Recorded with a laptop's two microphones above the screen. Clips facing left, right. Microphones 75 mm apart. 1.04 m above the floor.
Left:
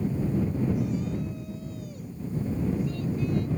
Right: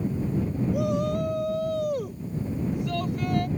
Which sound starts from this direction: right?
A shout, at 0.7 s.